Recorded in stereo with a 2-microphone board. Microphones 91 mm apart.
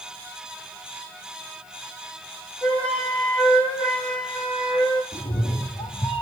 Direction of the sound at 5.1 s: 80° left.